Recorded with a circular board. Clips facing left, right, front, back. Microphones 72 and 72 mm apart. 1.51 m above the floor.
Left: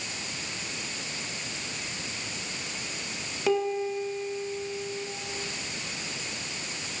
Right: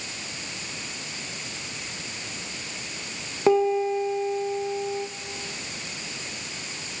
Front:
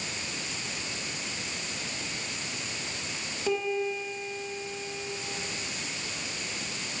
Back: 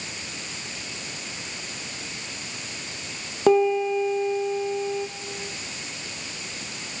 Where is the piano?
145° right, 2.5 m.